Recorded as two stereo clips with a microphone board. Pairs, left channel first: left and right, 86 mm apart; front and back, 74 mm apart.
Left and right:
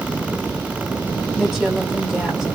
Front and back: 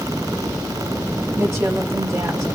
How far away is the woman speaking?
About 1.5 m.